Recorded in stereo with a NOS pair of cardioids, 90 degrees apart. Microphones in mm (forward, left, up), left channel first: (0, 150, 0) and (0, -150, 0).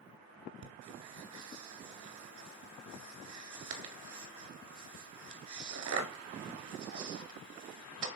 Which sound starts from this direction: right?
Breathing, at 0.6 s.